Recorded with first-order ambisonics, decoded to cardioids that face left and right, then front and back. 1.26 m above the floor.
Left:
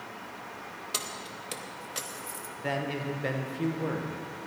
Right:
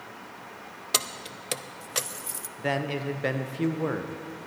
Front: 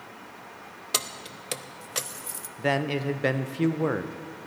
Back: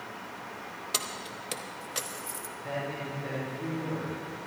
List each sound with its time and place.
0.9 s keys jangling: 60° right, 0.5 m
2.6 s a man speaking: 15° right, 1.0 m